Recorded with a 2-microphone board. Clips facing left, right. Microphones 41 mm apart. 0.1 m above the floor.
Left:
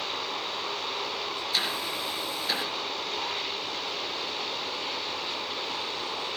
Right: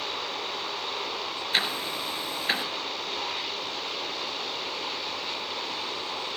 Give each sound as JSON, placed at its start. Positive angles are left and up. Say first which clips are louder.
{"t": 1.5, "sound": "ticking", "louder": "right 3 dB", "side_deg": -40, "distance_m": 1.9}